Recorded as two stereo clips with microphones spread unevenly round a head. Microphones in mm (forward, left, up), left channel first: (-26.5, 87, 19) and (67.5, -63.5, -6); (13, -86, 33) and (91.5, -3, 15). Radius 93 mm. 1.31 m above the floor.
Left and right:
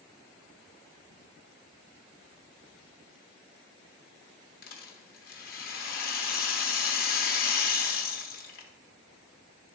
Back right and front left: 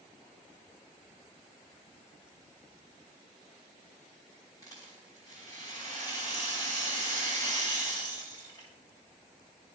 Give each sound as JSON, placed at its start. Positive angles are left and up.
{"t": 4.6, "sound": "a rattle", "azimuth_deg": 160, "distance_m": 1.1}